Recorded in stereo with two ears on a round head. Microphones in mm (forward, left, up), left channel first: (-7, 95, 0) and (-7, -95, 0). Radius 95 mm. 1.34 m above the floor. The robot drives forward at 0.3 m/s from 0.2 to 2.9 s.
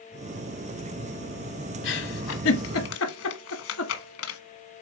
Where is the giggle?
60° left (ahead or behind), 1.5 m; by 4.4 s 70° left (ahead or behind), 1.4 m.